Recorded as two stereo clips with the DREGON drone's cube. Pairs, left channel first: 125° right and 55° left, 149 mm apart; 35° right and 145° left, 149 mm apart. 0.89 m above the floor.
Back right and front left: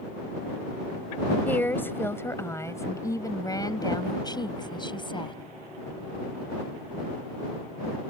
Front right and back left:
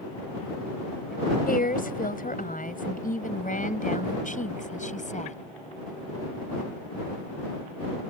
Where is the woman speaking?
45° right; by 5.4 s 70° right.